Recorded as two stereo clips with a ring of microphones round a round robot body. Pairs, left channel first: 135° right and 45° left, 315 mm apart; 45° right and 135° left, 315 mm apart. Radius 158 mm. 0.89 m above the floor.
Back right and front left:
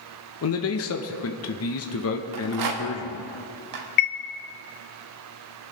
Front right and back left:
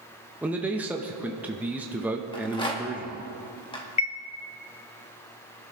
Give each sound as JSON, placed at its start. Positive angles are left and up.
{"t": 0.4, "sound": "a man speaking", "azimuth_deg": -140, "distance_m": 0.9}
{"t": 2.3, "sound": "a rattle", "azimuth_deg": 30, "distance_m": 1.7}
{"t": 4.0, "sound": "a chime", "azimuth_deg": -110, "distance_m": 0.6}